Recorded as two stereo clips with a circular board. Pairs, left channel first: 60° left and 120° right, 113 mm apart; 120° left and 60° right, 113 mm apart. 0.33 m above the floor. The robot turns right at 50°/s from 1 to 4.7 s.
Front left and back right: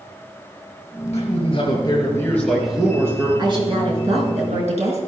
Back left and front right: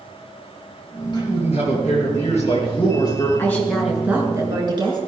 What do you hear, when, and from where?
1.1 s a man speaking: 75° left, 6 m; by 3.3 s 175° right, 6 m
3.4 s a woman speaking: 170° right, 5.5 m; by 5.0 s 105° right, 5.5 m